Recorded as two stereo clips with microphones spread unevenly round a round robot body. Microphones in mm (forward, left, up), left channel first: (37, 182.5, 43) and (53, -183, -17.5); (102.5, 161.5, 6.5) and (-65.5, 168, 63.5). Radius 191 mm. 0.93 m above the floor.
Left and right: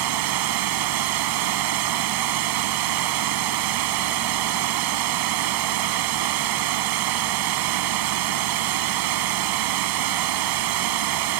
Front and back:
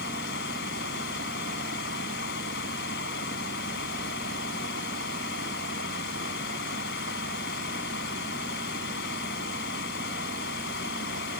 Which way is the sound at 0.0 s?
55° right.